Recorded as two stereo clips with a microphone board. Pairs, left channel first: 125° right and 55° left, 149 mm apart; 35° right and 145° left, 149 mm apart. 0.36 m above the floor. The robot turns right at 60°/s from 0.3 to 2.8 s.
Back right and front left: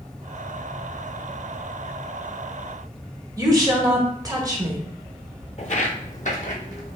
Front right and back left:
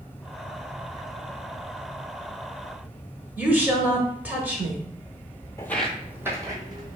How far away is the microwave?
No microwave in this recording.